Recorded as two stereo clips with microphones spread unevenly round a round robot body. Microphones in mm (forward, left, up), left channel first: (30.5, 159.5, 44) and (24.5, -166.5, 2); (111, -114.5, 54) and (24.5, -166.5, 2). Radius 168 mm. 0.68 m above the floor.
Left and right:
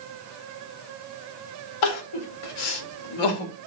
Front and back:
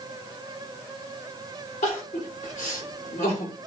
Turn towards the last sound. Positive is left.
turn(degrees=85)